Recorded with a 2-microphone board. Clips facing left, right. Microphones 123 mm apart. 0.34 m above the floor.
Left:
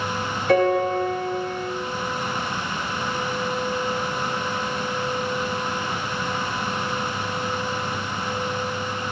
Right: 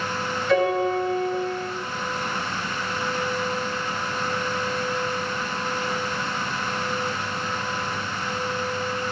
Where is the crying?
I don't hear crying.